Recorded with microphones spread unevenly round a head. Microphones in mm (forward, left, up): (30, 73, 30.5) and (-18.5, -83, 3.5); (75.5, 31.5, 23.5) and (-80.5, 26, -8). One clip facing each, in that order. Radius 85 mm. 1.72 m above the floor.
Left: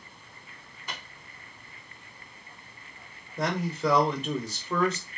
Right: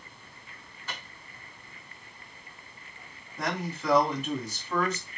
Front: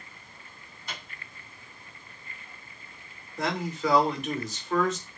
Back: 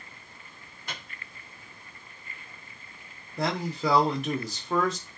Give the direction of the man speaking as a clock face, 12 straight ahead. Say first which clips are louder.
Left 4 dB, back 1 dB; 8 o'clock.